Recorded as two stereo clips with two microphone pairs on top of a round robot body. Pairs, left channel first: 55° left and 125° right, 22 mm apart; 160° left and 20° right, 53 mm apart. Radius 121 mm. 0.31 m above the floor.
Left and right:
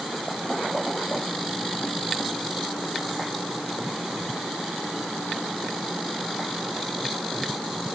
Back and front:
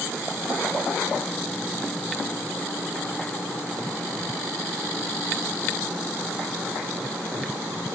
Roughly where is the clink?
I don't hear a clink.